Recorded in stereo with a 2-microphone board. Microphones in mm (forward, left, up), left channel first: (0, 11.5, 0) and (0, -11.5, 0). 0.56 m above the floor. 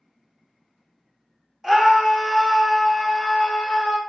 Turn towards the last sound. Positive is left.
turn(degrees=45)  # may be behind; listen again after turning